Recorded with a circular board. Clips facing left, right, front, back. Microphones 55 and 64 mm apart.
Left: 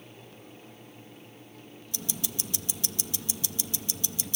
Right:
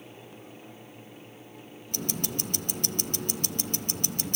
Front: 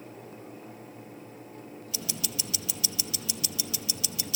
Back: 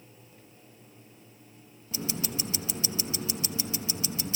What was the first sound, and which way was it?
Ticking, 125° right.